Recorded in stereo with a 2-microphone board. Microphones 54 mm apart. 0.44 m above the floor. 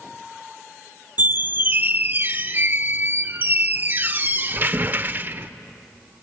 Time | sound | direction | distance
1.2 | a squeak | 35° right (ahead or behind) | 0.6 m